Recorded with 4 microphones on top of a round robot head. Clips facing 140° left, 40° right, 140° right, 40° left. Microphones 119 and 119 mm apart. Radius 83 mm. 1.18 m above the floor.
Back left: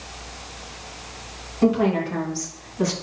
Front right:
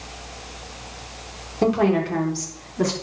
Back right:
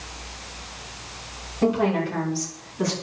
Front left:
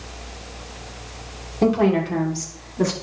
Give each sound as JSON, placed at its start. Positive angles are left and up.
{"t": 1.6, "sound": "a woman speaking", "azimuth_deg": 0, "distance_m": 3.5}